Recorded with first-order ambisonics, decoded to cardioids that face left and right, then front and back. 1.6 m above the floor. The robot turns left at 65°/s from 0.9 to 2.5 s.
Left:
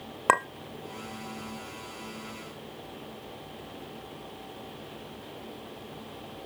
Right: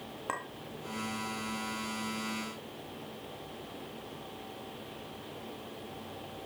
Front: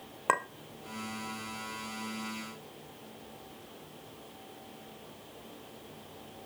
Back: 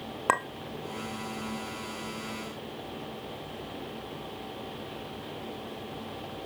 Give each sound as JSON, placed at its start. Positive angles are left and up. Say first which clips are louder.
{"t": 0.3, "sound": "a clink", "louder": "left 14 dB, back 2 dB", "azimuth_deg": 110, "distance_m": 0.6}